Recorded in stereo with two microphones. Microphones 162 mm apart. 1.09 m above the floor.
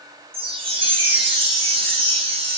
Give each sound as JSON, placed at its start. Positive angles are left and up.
{"t": 0.3, "sound": "a chime", "side_deg": -35, "distance_m": 0.9}